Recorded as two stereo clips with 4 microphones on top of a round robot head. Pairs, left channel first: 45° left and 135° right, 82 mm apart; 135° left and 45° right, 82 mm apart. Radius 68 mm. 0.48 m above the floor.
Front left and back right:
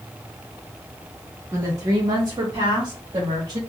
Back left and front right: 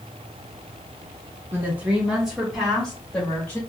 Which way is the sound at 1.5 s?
95° right.